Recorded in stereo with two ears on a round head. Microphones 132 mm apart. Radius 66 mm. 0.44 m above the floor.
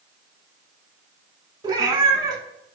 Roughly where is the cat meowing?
Right.